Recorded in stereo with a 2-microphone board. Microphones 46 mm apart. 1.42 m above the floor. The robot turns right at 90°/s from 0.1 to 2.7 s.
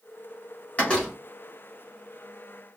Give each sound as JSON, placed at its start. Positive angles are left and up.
{"t": 0.8, "sound": "a door slam", "azimuth_deg": 150, "distance_m": 2.0}